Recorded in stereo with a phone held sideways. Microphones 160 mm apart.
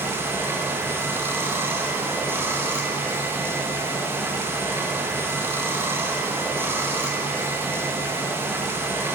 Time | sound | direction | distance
0.0 | running water | 15° right (ahead or behind) | 0.8 m